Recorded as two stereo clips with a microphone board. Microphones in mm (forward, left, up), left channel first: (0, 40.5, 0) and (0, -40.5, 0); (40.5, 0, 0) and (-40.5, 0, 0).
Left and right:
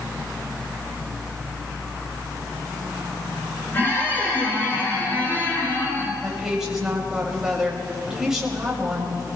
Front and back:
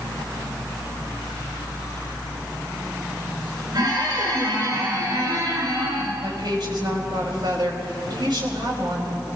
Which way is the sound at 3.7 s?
150° left.